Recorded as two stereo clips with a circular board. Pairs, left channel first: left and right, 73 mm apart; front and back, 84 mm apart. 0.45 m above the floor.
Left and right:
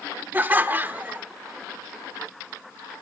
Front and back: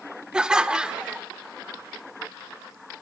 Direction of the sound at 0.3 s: 110° right.